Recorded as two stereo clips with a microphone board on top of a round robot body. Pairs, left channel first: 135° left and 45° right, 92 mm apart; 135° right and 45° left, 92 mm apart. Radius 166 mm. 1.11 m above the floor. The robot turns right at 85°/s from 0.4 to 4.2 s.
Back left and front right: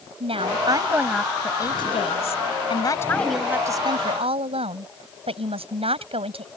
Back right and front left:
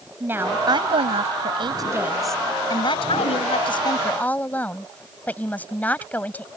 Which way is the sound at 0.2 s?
25° right.